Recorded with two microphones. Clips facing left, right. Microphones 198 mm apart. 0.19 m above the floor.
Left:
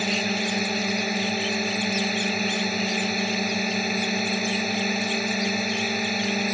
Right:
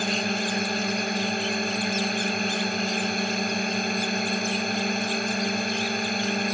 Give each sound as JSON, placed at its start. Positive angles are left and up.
{"t": 0.0, "sound": "a drone", "side_deg": 5}